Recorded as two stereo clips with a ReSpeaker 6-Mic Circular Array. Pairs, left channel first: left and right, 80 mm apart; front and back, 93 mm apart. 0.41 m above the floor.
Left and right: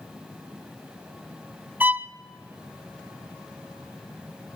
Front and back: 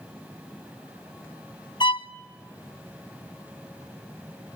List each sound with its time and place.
1.8 s a violin: 25° right, 0.6 m